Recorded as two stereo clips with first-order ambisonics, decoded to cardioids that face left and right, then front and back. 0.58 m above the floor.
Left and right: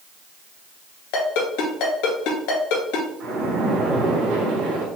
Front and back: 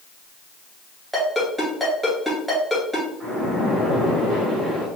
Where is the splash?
80° right, 2 m.